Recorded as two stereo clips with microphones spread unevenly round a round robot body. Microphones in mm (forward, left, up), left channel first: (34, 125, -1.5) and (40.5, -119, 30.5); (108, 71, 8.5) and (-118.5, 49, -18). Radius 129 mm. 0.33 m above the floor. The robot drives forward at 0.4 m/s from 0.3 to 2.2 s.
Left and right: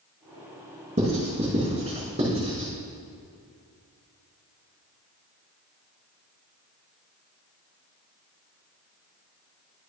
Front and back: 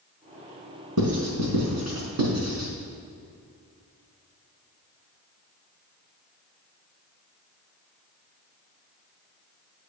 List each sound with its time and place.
1.0 s writing: 160° right, 4 m; by 2.7 s 165° right, 4 m